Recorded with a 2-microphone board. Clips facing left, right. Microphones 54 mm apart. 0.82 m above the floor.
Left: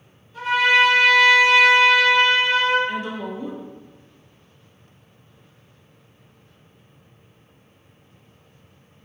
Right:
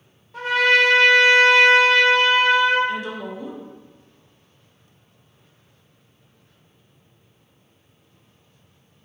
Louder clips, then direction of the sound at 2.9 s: Even; 30° left (ahead or behind).